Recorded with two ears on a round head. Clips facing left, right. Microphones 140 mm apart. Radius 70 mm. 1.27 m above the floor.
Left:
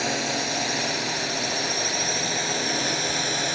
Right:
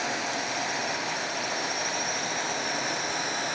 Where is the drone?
40° left (ahead or behind); by 3.6 s 35° left (ahead or behind).